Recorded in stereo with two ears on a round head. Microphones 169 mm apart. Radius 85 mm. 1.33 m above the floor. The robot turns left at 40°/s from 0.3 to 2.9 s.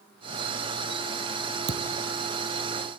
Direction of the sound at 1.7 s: 65° right (ahead or behind).